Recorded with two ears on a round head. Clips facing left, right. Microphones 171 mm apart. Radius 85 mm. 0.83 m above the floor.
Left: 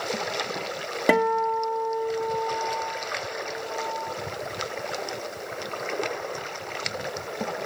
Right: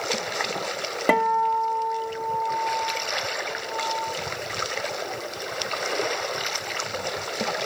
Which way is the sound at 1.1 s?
10° left (ahead or behind).